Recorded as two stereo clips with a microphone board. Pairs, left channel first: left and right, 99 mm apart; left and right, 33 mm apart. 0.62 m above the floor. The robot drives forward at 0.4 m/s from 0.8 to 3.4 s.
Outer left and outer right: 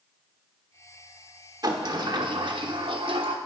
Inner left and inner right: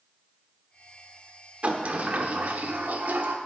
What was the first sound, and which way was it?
A sliding door, 45° right (ahead or behind).